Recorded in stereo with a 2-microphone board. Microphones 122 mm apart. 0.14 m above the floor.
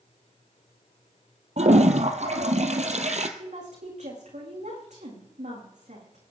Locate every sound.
1.6 s a toilet flushing: 70° right (ahead or behind), 1.6 m
3.4 s a woman speaking: 80° right, 9 m